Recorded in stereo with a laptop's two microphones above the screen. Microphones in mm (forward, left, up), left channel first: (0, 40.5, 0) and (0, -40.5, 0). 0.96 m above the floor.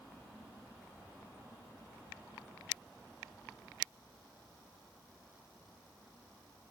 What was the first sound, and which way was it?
Only background noise.